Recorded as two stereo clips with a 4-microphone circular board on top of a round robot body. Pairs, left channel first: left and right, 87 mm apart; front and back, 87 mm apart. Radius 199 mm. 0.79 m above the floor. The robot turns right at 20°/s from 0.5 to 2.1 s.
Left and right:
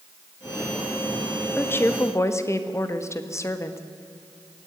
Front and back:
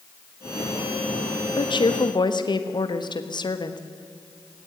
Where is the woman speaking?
20° left, 1.7 m; by 3.8 s 35° left, 1.7 m.